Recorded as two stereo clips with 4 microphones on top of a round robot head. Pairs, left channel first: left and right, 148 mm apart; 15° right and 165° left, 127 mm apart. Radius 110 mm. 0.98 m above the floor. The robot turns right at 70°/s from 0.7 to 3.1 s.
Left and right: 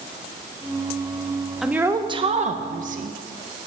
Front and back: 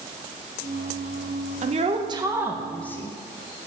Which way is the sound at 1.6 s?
Straight behind.